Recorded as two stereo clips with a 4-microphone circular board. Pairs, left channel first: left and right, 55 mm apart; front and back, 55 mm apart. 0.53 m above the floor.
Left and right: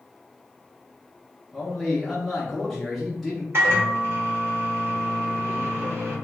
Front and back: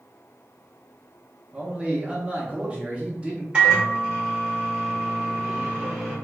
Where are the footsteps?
I don't hear footsteps.